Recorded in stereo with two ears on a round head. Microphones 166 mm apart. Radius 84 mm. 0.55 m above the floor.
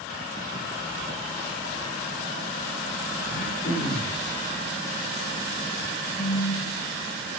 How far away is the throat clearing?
About 2.5 m.